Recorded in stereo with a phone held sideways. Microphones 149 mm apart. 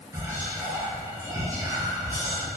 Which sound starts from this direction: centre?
Whispering, at 0.1 s.